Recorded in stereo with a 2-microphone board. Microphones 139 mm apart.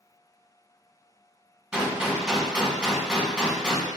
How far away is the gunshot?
About 1.5 m.